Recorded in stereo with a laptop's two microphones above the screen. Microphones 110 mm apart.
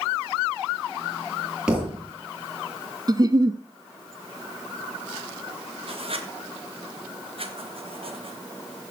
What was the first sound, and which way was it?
A thud, 10° right (ahead or behind).